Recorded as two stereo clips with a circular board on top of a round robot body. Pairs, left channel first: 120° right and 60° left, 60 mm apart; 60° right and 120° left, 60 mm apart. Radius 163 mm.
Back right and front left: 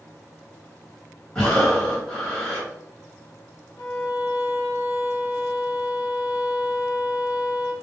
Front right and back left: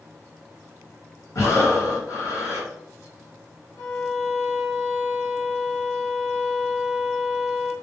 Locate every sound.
1.4 s breathing: 45° right, 1.8 m
3.8 s a violin: 90° right, 1.5 m